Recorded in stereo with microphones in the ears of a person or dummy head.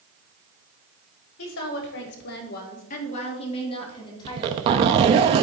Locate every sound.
1.4 s a woman speaking: 80° left, 1.4 m; by 5.2 s 15° left (ahead or behind), 3 m
4.2 s a zipper: 30° right (ahead or behind), 0.7 m